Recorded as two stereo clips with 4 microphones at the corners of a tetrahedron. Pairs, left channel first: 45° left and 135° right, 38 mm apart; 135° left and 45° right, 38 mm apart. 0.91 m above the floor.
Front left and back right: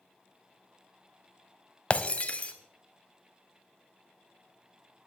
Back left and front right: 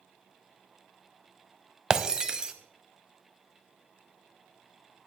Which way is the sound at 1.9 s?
15° left.